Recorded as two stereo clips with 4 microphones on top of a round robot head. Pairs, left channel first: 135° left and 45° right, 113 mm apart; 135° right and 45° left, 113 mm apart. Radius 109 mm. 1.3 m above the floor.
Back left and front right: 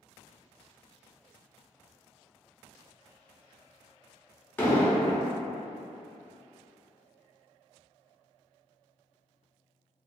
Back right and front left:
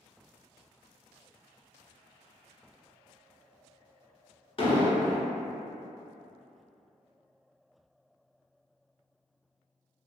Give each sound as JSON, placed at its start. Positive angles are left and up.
{"t": 4.6, "sound": "an explosion", "azimuth_deg": -155, "distance_m": 0.8}